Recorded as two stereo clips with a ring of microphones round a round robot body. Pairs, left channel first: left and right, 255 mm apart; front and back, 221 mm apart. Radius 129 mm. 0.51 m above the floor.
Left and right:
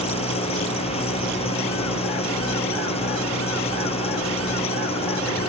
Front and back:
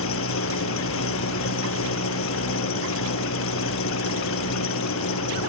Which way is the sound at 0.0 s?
20° left.